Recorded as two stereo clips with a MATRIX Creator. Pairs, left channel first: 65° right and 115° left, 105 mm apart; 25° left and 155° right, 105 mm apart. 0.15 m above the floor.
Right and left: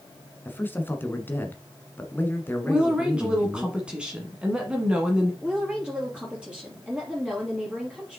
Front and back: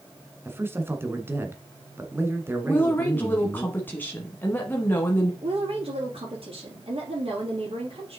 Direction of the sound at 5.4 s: 170° right.